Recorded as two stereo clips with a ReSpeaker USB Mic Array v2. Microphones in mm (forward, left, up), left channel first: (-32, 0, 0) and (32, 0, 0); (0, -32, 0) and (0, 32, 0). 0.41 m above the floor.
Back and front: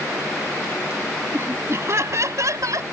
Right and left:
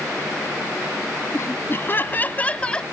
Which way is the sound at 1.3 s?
45° right.